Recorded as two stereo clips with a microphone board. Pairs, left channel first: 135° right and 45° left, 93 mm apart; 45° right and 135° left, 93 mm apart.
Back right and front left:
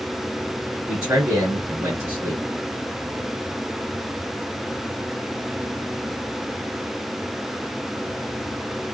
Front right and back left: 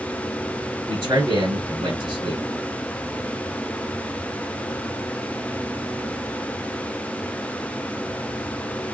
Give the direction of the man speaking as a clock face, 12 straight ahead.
8 o'clock.